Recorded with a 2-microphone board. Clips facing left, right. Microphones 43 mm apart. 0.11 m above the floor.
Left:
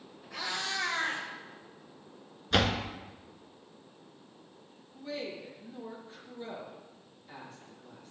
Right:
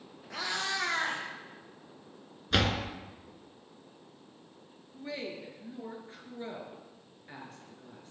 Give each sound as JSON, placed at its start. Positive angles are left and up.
{"t": 0.3, "sound": "a cat meowing", "side_deg": -65, "distance_m": 3.5}
{"t": 2.5, "sound": "a door slam", "side_deg": 0, "distance_m": 0.8}
{"t": 4.9, "sound": "a woman speaking", "side_deg": -40, "distance_m": 2.0}